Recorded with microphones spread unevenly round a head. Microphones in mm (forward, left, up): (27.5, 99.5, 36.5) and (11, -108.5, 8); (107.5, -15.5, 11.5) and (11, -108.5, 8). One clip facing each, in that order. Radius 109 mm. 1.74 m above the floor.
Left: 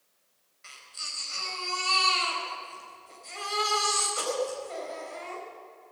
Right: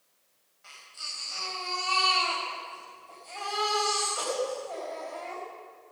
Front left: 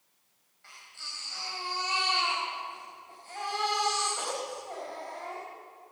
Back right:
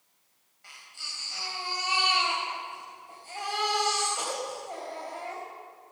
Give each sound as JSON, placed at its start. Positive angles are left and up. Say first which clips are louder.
{"t": 0.6, "sound": "a baby crying", "louder": "left 1 dB, back right 1 dB", "azimuth_deg": 145, "distance_m": 4.0}